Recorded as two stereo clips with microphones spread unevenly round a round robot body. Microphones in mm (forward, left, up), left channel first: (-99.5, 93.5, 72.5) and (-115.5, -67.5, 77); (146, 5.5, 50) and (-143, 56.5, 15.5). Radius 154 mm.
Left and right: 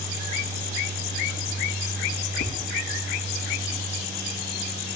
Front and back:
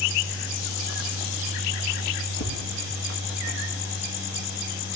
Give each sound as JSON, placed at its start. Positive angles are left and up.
{"t": 2.4, "sound": "tapping", "azimuth_deg": 30, "distance_m": 3.0}